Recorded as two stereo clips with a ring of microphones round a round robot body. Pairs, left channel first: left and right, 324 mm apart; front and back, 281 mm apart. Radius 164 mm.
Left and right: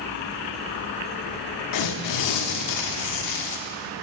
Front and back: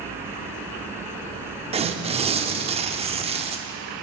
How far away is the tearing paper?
About 0.6 m.